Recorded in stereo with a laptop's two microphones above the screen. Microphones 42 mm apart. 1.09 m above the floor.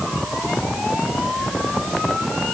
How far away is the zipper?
No zipper in this recording.